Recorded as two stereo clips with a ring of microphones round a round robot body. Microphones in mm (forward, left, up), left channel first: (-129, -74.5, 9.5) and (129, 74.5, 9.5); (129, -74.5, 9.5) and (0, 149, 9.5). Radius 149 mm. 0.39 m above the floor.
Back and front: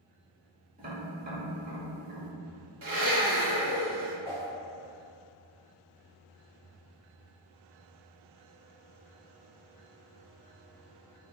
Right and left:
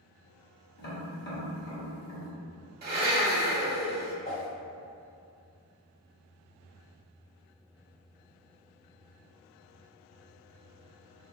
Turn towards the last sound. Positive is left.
turn(degrees=-30)